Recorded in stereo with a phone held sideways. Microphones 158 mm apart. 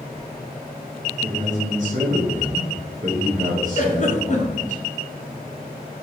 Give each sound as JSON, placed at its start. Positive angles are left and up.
{"t": 1.2, "sound": "a man speaking", "side_deg": -50, "distance_m": 0.8}
{"t": 3.8, "sound": "a giggle", "side_deg": 50, "distance_m": 0.6}